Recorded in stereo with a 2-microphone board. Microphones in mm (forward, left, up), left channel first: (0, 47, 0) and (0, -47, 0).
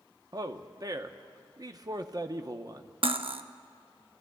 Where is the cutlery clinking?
75° right (ahead or behind), 0.6 m.